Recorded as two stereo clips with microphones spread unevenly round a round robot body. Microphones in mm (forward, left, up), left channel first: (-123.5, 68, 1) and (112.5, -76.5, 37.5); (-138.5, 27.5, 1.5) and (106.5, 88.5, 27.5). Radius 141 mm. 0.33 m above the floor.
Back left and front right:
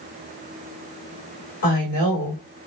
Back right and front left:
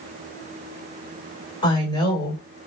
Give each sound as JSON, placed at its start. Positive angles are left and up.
{"t": 1.6, "sound": "a woman speaking", "azimuth_deg": 140, "distance_m": 1.4}